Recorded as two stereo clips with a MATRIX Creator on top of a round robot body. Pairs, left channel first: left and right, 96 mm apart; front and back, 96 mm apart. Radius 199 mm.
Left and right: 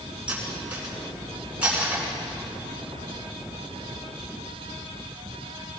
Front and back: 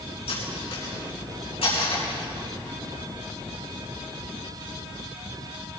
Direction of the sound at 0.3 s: 15° right.